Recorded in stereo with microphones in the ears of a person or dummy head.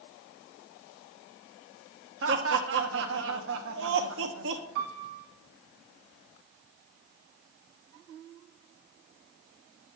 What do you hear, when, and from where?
2.2 s laughter: 65° right (ahead or behind), 1.1 m
4.8 s a piano: 65° right (ahead or behind), 1.6 m